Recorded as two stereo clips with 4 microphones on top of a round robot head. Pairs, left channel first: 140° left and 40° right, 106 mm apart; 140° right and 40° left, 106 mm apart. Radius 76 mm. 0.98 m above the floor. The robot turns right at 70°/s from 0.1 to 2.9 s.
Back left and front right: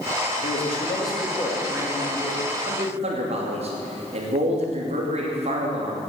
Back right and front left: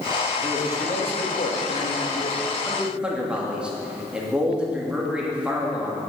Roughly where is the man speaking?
Behind left.